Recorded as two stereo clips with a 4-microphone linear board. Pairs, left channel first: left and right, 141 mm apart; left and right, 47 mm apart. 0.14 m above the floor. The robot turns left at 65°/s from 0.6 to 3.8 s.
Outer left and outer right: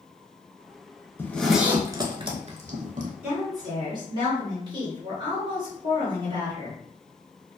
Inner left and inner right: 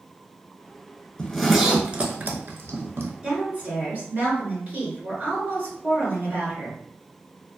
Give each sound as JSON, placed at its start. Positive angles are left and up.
{"t": 1.2, "sound": "a zipper", "side_deg": 15, "distance_m": 0.5}
{"t": 3.2, "sound": "a woman speaking", "azimuth_deg": -25, "distance_m": 1.8}